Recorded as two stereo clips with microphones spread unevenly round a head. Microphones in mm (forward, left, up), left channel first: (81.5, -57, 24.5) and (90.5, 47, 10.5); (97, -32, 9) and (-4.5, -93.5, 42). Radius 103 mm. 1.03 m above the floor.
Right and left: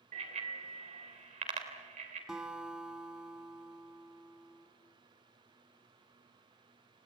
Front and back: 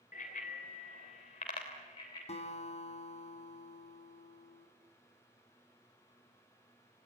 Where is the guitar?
5° right, 3.5 m.